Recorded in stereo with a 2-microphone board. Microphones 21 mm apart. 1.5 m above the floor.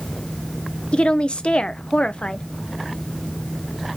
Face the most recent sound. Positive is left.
turn(degrees=60)  # may be behind; listen again after turning